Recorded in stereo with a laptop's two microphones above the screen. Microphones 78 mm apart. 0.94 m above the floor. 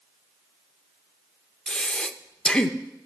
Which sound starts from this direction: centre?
Breathing, at 1.7 s.